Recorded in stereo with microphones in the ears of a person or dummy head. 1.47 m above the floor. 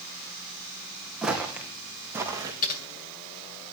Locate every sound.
1.2 s footsteps: 5° right (ahead or behind), 3.5 m; by 2.5 s 15° right (ahead or behind), 3.5 m
2.6 s typing on a keyboard: 45° left (ahead or behind), 7.5 m